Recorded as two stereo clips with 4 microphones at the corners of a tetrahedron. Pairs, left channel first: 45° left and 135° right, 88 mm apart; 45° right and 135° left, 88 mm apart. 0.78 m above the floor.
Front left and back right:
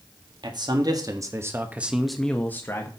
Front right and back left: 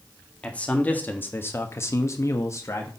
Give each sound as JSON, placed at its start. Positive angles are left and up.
{"t": 0.4, "sound": "a man speaking", "azimuth_deg": -120, "distance_m": 1.8}